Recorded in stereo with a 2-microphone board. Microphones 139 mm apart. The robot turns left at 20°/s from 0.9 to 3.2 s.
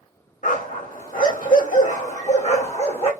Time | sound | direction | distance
0.4 | a dog barking | 90° left | 1.6 m